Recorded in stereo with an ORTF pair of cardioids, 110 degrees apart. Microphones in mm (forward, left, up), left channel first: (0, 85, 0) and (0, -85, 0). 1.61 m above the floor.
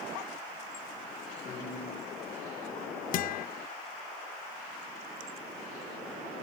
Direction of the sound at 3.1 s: 55° left.